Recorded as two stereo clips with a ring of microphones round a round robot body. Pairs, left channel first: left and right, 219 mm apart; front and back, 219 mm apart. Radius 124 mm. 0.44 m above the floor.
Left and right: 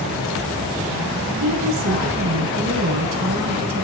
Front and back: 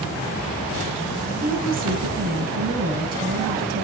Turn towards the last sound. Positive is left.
turn(degrees=-125)